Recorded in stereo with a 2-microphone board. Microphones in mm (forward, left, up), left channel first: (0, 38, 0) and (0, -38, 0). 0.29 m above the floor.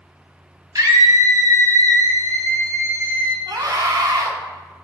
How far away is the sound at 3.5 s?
About 2.5 m.